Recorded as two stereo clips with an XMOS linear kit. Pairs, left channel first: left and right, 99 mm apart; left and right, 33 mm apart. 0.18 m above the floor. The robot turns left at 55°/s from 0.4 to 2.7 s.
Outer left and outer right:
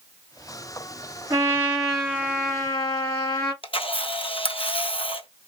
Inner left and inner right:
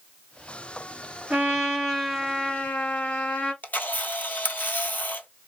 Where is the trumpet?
145° right, 3 m; by 3.5 s 135° left, 3 m.